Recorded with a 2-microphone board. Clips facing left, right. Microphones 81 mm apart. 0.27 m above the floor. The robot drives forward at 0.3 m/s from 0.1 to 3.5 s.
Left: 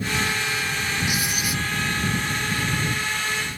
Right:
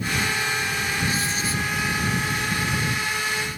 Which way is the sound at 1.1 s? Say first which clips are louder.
Right 1 dB; 15° left (ahead or behind).